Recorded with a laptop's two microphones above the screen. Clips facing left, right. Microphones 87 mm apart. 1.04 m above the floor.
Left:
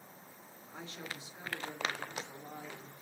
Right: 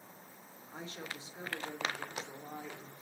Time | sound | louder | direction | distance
0.7 | a woman speaking | right 1 dB | 30° right (ahead or behind) | 3 m